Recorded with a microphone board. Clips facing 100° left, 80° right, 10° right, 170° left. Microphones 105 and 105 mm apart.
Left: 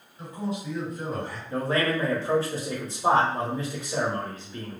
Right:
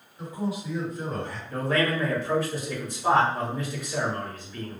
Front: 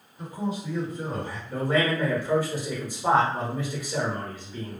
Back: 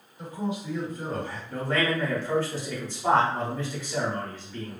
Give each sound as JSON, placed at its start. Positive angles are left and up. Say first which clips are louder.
{"t": 0.2, "sound": "a man speaking", "louder": "right 1 dB, front 1 dB", "azimuth_deg": -15, "distance_m": 1.7}
{"t": 1.5, "sound": "a man speaking", "louder": "even, front 2 dB", "azimuth_deg": 60, "distance_m": 1.0}